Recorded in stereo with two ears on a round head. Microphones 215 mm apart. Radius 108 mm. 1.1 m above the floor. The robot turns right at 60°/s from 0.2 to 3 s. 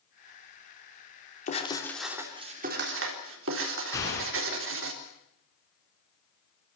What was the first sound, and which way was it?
Writing, 145° left.